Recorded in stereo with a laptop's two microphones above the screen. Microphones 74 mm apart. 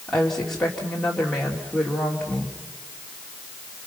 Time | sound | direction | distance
0.1 | a woman speaking | 5° left (ahead or behind) | 3 m